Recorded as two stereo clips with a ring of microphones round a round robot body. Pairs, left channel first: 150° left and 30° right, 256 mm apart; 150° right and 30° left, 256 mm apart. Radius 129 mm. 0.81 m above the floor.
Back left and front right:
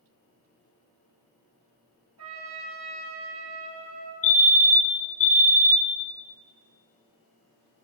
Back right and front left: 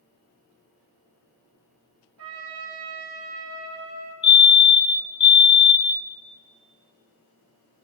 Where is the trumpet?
5° right, 3.5 m.